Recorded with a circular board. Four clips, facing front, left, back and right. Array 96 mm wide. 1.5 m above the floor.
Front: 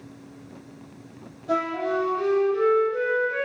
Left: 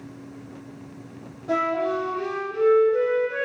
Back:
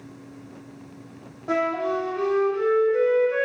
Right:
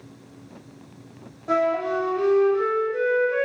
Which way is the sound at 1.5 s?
150° right.